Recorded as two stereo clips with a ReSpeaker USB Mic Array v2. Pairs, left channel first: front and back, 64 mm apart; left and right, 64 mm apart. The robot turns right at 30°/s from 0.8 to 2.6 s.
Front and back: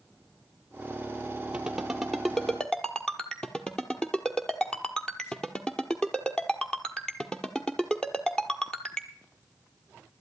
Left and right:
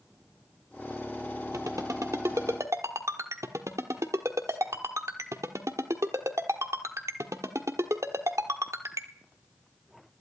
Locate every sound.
1.5 s a ringtone: 110° right, 1.3 m; by 9.1 s 80° right, 1.3 m